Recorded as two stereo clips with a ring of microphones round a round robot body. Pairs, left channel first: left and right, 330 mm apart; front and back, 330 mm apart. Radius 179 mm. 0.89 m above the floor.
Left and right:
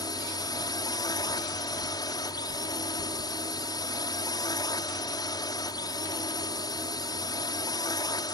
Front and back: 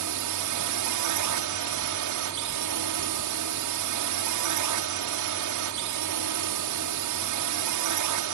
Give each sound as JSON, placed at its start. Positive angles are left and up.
{"t": 0.0, "sound": "a drone", "azimuth_deg": 165}